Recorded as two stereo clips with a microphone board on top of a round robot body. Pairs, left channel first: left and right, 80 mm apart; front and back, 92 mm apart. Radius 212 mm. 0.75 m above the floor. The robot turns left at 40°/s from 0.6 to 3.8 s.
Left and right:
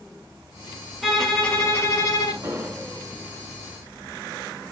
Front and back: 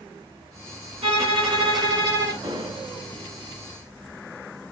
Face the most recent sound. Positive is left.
turn(degrees=160)